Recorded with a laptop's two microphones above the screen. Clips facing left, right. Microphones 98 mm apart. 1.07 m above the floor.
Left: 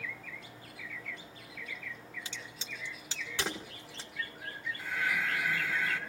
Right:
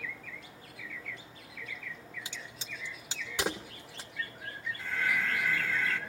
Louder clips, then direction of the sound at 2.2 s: Even; 15° right (ahead or behind).